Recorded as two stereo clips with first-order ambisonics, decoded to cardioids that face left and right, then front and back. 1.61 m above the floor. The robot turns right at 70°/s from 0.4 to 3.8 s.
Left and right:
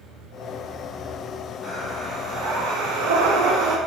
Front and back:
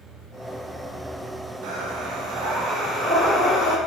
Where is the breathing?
170° left, 0.5 m; by 3.8 s 45° right, 0.5 m.